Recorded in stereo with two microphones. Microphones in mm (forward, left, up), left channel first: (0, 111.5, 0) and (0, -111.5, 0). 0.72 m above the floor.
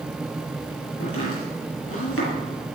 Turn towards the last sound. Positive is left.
turn(degrees=90)